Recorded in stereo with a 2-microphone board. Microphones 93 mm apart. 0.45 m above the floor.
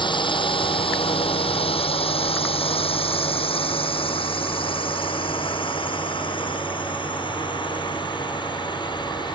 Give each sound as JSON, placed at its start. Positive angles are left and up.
{"t": 0.0, "sound": "a drone", "side_deg": 55}